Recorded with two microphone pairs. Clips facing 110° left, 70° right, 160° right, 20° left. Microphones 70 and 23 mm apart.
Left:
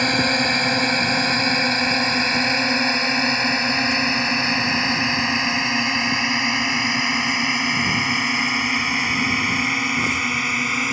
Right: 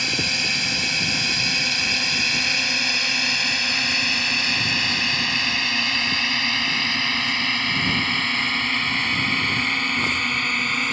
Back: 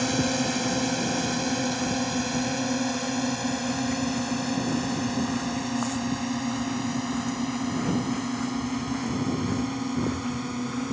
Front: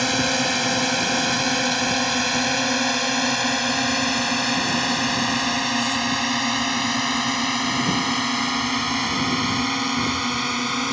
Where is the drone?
70° left; by 10.9 s 30° left.